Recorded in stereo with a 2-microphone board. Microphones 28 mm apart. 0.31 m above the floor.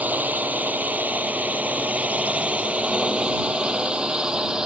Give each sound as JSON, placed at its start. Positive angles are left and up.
{"t": 0.0, "sound": "a drone", "side_deg": -80}